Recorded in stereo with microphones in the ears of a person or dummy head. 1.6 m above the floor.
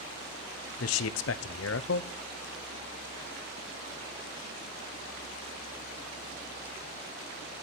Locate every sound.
0.8 s a man speaking: 65° left (ahead or behind), 0.7 m